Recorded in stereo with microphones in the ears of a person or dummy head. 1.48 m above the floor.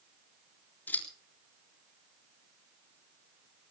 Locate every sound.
0.9 s scissors: 10° left (ahead or behind), 4 m